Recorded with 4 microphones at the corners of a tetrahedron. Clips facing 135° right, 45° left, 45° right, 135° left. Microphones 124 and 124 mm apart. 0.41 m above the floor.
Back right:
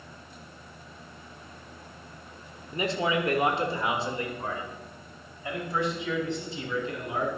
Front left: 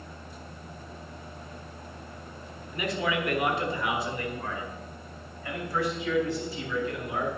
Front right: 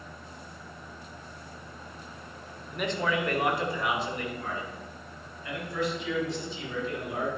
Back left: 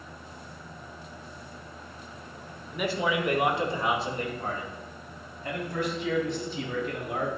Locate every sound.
2.7 s a man speaking: 140° right, 1.1 m; by 7.3 s 155° left, 3.5 m